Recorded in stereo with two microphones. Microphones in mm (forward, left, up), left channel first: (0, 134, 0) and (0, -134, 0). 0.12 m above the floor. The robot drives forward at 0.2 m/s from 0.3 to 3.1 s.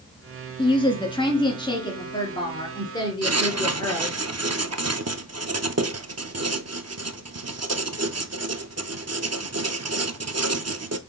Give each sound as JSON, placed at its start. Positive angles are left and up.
{"t": 0.6, "sound": "a woman speaking", "side_deg": 20, "distance_m": 1.0}
{"t": 3.2, "sound": "writing", "side_deg": -70, "distance_m": 0.6}